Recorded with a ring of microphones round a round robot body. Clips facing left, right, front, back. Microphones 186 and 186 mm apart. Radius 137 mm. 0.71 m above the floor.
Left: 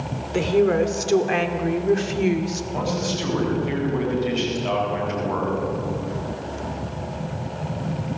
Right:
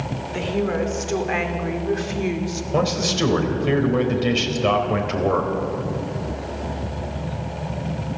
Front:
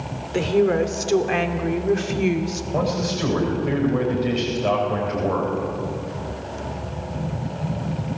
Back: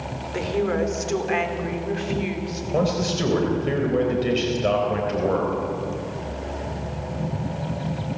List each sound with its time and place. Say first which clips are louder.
0.3 s a woman speaking: left 5 dB, front 5 dB; 55° left, 2.5 m; by 2.6 s 25° left, 2.5 m
2.7 s a man speaking: right 6 dB, back 2 dB; 115° right, 3.5 m